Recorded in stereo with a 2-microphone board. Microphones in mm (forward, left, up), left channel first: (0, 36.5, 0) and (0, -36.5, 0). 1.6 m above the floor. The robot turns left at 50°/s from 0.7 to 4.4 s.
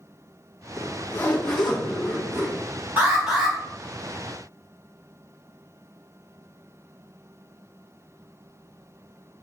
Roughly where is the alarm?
Behind right.